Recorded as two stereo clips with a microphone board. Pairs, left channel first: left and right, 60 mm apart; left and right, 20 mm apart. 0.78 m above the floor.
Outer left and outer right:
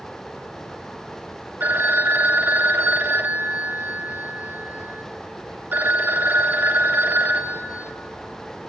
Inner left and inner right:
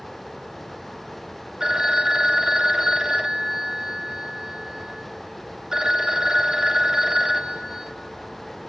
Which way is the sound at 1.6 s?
35° right (ahead or behind).